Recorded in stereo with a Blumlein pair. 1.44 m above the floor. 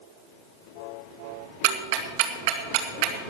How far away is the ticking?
About 1.9 m.